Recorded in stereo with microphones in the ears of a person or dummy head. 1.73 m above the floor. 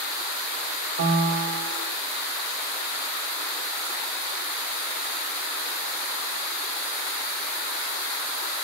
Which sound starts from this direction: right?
A piano, at 1.0 s.